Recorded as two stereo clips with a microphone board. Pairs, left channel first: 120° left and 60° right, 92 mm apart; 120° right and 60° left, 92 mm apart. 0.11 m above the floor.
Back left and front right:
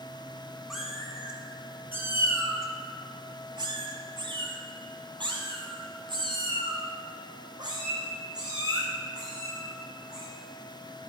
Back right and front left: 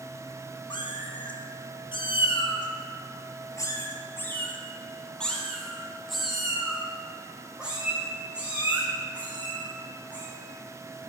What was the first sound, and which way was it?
A cat meowing, 145° right.